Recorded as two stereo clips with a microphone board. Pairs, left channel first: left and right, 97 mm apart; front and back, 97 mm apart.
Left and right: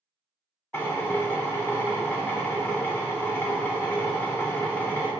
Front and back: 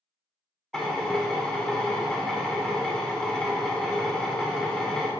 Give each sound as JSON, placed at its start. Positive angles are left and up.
{"t": 0.7, "sound": "a drill", "azimuth_deg": 70, "distance_m": 0.7}